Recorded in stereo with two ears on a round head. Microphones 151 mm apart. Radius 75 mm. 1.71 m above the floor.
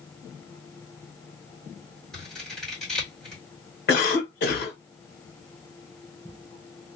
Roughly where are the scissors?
Centre.